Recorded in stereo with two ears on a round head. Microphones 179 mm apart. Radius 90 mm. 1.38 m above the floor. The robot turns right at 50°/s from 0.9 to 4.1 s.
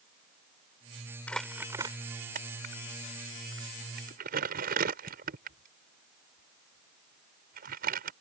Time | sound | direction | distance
1.3 | crumpling | 5° left (ahead or behind) | ?